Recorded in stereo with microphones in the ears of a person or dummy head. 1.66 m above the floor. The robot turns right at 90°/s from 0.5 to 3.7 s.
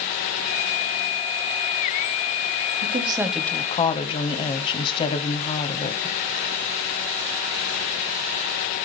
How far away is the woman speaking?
About 0.8 m.